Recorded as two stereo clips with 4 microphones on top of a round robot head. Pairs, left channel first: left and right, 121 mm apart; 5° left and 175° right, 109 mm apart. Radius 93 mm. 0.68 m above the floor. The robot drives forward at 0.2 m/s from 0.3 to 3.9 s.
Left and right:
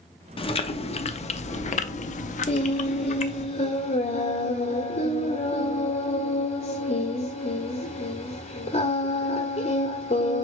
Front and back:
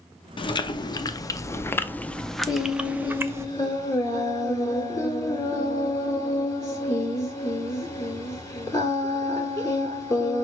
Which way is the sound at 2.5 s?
55° left.